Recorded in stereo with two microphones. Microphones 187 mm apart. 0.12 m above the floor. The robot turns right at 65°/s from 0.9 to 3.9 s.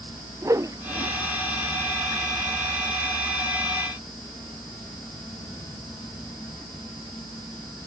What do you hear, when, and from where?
0.4 s a whoosh: 15° right (ahead or behind); by 1.1 s 30° right (ahead or behind)